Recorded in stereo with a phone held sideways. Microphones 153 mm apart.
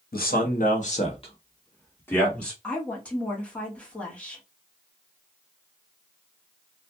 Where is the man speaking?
75° left (ahead or behind), 1.1 m; by 2.5 s 5° left (ahead or behind), 1.5 m.